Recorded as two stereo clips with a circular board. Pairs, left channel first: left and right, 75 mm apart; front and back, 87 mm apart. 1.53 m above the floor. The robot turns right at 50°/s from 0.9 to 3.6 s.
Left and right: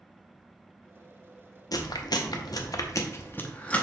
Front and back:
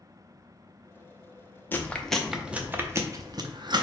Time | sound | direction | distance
1.7 | chewing | 65° left | 0.5 m